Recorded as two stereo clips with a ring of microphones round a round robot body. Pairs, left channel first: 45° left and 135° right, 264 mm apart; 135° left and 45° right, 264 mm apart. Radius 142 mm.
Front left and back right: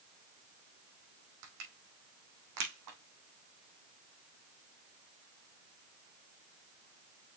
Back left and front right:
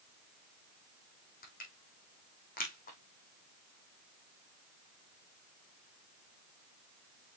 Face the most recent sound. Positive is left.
turn(degrees=-165)